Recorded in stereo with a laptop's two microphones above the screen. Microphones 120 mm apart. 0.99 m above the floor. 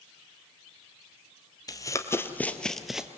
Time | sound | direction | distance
1.7 | running footsteps | 30° left (ahead or behind) | 1.2 m